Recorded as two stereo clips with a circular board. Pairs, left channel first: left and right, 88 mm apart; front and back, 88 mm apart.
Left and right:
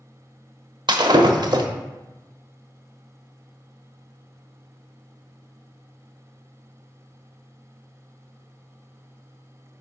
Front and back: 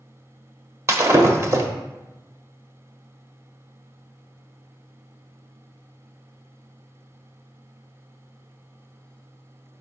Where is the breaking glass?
125° right, 0.7 m.